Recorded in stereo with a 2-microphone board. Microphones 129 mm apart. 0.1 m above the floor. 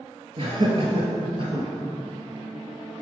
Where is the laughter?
45° right (ahead or behind), 2 m.